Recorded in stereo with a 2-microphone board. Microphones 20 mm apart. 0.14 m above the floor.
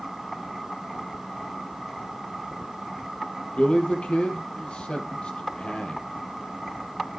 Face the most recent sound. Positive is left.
turn(degrees=60)  # may be behind; listen again after turning